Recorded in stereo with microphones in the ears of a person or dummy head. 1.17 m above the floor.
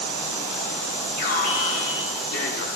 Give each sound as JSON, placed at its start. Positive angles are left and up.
{"t": 1.2, "sound": "an alarm", "side_deg": 50, "distance_m": 4.5}